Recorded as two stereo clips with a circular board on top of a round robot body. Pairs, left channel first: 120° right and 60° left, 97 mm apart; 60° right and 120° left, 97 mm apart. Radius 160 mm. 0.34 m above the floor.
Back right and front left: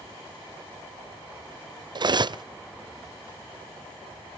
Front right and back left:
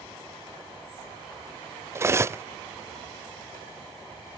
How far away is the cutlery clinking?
About 0.5 m.